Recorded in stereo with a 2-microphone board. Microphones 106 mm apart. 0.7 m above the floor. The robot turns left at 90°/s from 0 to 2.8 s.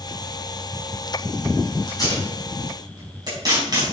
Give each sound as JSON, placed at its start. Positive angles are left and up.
{"t": 1.9, "sound": "tape being pulled", "side_deg": 45, "distance_m": 5.0}